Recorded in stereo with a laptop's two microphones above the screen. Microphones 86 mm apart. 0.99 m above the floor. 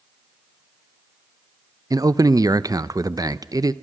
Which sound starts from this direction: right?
A man speaking, at 1.9 s.